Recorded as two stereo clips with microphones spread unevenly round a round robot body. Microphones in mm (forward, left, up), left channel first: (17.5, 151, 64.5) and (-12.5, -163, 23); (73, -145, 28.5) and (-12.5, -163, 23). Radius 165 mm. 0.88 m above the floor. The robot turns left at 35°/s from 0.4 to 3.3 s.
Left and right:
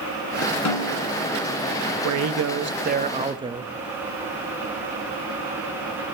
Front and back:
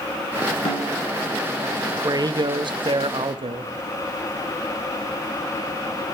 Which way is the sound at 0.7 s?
50° left.